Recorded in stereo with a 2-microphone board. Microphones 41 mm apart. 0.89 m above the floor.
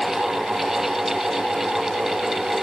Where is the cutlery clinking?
I don't hear cutlery clinking.